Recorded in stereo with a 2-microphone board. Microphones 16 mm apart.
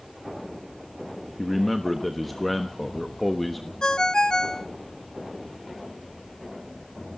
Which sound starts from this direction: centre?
A man speaking, at 1.4 s.